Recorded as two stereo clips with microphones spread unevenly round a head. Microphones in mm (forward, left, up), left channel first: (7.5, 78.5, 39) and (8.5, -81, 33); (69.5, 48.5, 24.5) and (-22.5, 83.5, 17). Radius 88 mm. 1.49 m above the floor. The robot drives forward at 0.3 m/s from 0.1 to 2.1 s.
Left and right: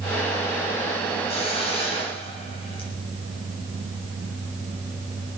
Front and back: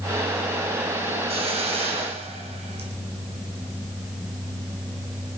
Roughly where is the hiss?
Behind left.